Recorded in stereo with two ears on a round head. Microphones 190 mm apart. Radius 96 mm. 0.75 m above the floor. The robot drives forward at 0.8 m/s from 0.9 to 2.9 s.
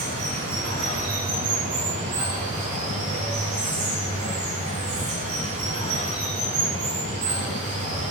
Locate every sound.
0.0 s running water: 45° right (ahead or behind), 4.5 m; by 8.1 s 35° right (ahead or behind), 6 m